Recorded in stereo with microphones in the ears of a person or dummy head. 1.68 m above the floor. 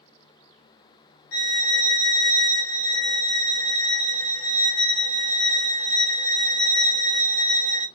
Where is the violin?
70° left (ahead or behind), 0.8 m.